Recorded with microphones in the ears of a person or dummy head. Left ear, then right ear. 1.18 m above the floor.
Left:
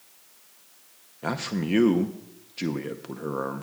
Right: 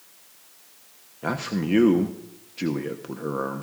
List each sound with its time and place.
1.2 s a man speaking: 5° left (ahead or behind), 0.8 m